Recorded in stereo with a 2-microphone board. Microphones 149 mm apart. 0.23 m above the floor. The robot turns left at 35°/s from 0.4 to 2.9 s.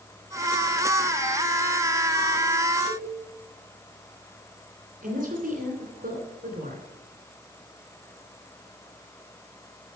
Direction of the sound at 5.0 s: 60° right (ahead or behind).